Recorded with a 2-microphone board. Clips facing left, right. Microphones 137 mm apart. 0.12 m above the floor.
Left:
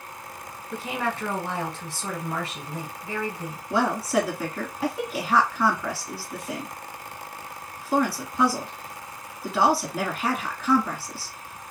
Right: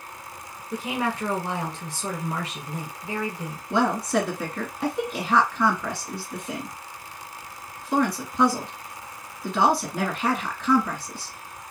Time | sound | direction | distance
0.7 | a woman speaking | 20° right (ahead or behind) | 1.2 m
3.7 | a woman speaking | 5° left (ahead or behind) | 1.0 m